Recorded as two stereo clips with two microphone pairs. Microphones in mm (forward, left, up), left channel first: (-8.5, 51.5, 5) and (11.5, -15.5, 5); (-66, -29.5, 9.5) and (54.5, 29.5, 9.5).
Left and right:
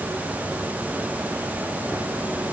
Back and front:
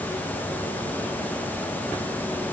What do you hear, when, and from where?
Only background noise.